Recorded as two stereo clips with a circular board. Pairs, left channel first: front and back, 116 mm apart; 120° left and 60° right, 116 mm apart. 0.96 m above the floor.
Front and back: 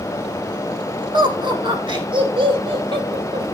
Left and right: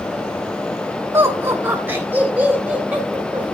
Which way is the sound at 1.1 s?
130° right.